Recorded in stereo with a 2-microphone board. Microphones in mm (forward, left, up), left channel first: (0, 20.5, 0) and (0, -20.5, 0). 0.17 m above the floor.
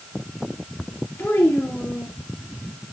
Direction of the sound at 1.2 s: 65° left (ahead or behind).